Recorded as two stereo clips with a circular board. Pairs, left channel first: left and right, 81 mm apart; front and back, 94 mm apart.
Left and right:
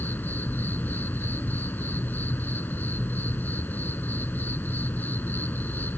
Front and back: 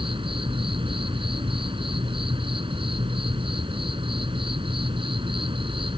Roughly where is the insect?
Behind.